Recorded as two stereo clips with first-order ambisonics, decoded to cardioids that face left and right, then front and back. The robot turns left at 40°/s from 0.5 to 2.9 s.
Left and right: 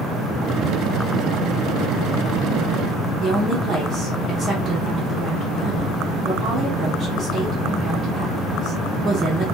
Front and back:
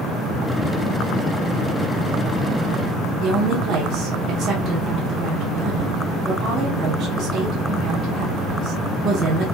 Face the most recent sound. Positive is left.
turn(degrees=-150)